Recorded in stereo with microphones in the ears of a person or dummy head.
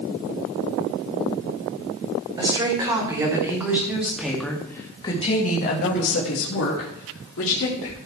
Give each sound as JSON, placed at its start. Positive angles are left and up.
{"t": 2.4, "sound": "a woman speaking", "side_deg": -20, "distance_m": 4.5}